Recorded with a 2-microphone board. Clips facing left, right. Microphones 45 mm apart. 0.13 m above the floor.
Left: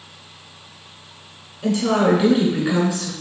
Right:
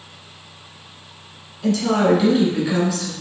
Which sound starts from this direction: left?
A woman speaking, at 1.6 s.